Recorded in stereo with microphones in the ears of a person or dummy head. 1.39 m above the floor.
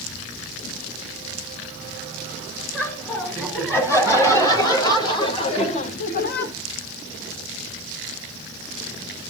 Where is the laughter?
10° left (ahead or behind), 5 m; by 6.5 s 65° left (ahead or behind), 1.5 m.